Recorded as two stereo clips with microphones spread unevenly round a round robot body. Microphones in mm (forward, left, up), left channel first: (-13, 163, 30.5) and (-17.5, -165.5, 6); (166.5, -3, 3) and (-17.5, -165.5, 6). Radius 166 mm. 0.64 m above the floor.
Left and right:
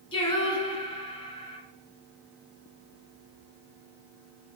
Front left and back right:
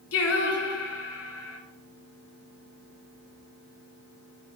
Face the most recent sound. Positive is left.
turn(degrees=15)